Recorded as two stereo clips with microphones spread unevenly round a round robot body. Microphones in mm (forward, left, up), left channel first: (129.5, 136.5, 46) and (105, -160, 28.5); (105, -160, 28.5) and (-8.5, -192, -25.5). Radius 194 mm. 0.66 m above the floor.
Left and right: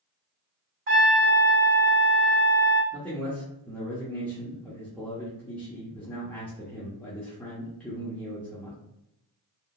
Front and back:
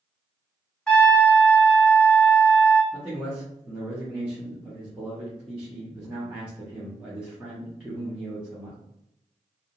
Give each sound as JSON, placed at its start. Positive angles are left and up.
{"t": 0.9, "sound": "a trumpet", "azimuth_deg": -95, "distance_m": 1.0}
{"t": 2.9, "sound": "a man speaking", "azimuth_deg": 175, "distance_m": 0.6}